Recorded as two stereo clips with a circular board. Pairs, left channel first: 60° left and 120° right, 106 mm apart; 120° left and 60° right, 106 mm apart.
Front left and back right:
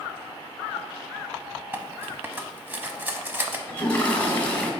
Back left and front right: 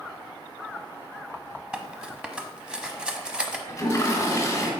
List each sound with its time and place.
1.7 s cutlery clinking: 120° right, 0.8 m
3.7 s a toilet flushing: 115° left, 1.4 m